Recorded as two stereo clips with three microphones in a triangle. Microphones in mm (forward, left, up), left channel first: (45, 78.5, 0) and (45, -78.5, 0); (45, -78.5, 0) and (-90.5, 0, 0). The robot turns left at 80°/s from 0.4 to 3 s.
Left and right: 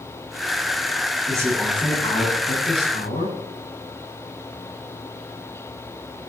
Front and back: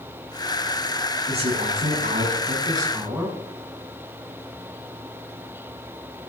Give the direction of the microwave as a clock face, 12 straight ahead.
I don't hear a microwave.